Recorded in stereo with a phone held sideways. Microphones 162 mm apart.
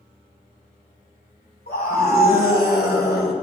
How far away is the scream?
About 4.5 m.